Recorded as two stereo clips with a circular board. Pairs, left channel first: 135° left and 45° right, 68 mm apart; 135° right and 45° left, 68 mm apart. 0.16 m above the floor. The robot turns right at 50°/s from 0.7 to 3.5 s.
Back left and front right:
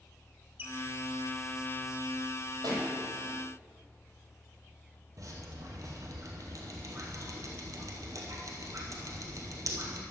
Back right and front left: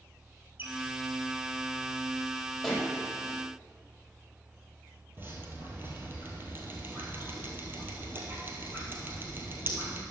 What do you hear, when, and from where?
0.6 s a squeak: 5° right, 1.3 m; by 0.7 s straight ahead, 1.3 m
2.6 s a pop: 50° right, 4 m; by 2.9 s 40° right, 4 m
5.2 s dripping: 15° right, 1.8 m